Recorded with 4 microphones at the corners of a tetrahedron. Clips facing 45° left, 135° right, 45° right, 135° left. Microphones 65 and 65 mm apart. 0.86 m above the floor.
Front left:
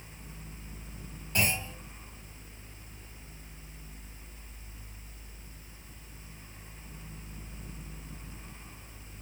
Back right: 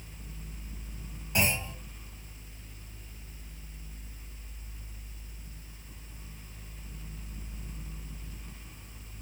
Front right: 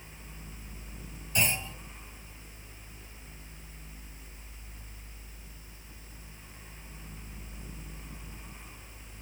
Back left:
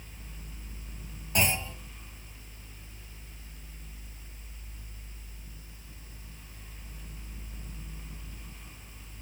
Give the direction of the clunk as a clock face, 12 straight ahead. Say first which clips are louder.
Back right 1 dB, back left 2 dB; 7 o'clock.